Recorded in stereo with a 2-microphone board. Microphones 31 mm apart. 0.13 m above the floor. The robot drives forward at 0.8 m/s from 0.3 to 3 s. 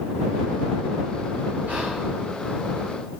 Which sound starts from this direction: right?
Whispering, at 1.7 s.